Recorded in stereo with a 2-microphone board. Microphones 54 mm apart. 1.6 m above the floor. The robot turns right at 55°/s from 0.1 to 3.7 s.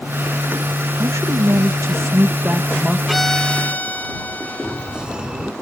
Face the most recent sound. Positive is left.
turn(degrees=-15)  # may be behind; listen again after turning